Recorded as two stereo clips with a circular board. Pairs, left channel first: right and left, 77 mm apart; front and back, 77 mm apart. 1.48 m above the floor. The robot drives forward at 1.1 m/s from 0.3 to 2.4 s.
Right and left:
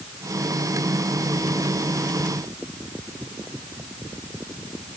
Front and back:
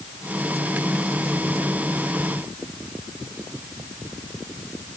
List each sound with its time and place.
Only background noise.